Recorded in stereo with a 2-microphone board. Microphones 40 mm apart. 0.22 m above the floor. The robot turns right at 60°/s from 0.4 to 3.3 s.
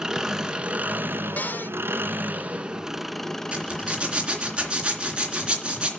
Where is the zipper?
25° right (ahead or behind), 3 m.